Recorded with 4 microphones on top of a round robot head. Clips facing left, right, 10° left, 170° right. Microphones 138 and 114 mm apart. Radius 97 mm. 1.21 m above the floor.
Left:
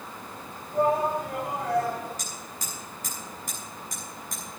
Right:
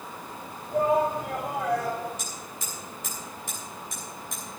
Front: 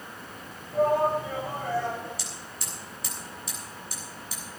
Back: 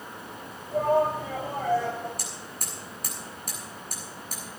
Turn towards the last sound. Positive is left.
turn(degrees=150)